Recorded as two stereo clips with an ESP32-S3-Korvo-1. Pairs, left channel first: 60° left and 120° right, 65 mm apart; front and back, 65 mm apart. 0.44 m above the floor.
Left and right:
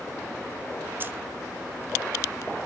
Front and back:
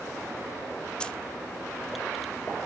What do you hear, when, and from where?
1.0 s keys jangling: 75° right, 0.6 m